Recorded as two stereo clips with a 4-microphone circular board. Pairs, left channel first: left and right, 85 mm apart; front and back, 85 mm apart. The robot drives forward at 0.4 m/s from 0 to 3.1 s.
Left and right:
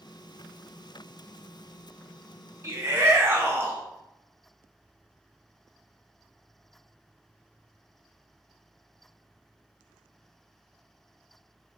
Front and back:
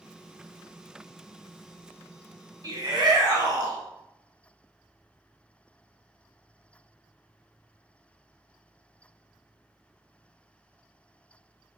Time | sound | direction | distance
2.6 | a shout | 145° right | 1.8 m